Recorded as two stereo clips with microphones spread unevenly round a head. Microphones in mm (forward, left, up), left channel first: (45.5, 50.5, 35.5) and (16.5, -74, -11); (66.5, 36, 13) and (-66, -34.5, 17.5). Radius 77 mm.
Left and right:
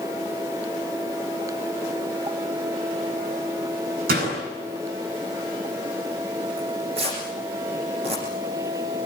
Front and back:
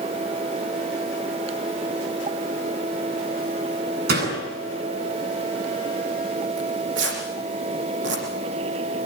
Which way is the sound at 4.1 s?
125° right.